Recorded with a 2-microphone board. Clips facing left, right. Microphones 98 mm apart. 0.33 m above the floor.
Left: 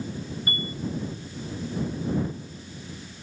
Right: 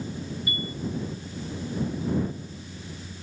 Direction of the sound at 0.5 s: 50° left (ahead or behind).